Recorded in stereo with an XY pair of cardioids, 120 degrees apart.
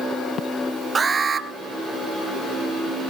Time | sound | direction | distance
0.9 | an alarm | 30° right | 1.7 m